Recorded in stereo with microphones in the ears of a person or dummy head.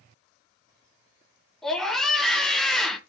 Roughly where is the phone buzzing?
No phone buzzing in this recording.